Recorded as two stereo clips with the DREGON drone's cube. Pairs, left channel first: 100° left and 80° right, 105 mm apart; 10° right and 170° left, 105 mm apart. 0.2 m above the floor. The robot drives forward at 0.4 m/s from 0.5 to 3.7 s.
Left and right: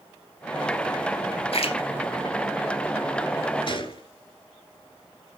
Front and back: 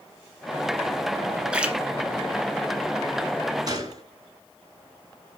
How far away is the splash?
About 1.9 m.